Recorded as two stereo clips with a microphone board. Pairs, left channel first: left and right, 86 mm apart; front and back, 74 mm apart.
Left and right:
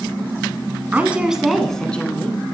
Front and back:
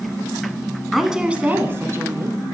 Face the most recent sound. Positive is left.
turn(degrees=155)